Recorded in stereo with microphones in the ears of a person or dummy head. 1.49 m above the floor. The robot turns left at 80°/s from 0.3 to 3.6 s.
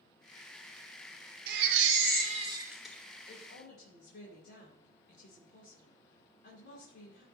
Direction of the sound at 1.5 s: 65° right.